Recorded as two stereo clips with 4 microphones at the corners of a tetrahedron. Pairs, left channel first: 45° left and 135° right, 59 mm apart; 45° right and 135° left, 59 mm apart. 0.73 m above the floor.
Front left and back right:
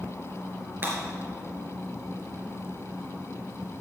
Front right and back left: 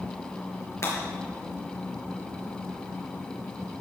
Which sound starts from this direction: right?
Breaking glass, at 0.8 s.